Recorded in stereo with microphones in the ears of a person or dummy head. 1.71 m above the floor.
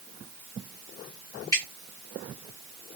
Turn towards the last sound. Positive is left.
turn(degrees=15)  # may be behind; listen again after turning